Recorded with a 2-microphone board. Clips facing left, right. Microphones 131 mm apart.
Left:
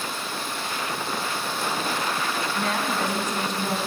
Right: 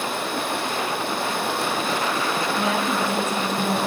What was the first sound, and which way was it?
Running water, 65° right (ahead or behind).